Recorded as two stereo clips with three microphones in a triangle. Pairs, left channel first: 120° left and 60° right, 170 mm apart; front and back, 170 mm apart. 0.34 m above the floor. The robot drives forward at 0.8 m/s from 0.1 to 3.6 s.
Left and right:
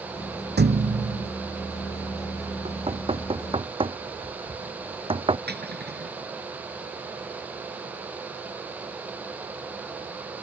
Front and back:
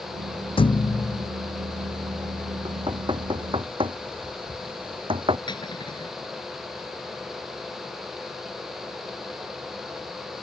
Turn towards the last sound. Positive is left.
turn(degrees=-65)